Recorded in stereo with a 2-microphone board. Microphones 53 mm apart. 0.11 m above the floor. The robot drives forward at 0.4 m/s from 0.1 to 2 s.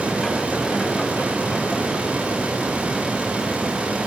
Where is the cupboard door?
I don't hear a cupboard door.